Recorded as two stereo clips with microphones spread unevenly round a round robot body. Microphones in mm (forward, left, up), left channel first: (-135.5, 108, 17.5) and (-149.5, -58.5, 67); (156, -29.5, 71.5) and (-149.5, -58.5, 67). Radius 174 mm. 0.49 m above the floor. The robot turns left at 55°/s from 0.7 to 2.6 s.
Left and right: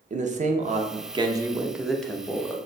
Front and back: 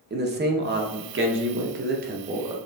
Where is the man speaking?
140° right, 0.8 m; by 2.5 s 115° left, 0.8 m.